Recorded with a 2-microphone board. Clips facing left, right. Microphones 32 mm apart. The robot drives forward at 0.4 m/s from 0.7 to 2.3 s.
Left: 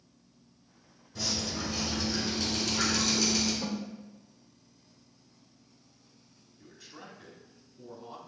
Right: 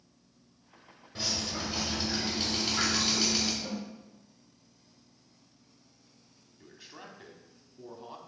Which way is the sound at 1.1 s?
45° right (ahead or behind).